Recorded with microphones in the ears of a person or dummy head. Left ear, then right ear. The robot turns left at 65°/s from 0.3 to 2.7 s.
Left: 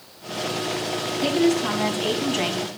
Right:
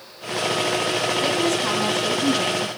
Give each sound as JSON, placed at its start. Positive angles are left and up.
{"t": 1.2, "sound": "a woman speaking", "azimuth_deg": -140, "distance_m": 2.5}